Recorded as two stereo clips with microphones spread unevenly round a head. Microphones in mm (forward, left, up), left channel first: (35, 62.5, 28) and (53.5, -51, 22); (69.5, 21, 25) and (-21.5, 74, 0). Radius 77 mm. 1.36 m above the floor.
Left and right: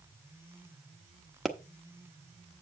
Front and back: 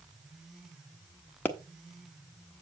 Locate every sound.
1.4 s a pop: 15° left, 1.1 m